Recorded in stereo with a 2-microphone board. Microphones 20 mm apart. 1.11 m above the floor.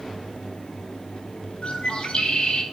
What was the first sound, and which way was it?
A bird, 50° left (ahead or behind).